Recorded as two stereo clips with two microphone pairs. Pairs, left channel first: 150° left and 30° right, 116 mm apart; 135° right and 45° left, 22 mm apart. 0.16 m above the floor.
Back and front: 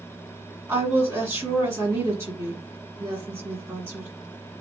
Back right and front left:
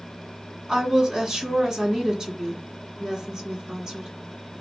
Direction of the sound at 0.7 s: 20° left.